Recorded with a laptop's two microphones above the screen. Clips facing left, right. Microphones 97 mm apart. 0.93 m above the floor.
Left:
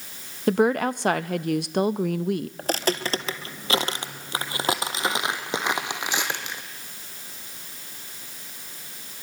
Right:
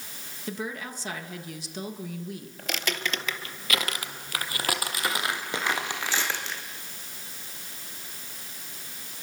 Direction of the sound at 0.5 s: 65° left (ahead or behind).